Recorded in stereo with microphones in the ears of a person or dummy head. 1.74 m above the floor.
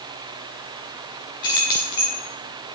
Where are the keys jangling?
20° left (ahead or behind), 0.6 m.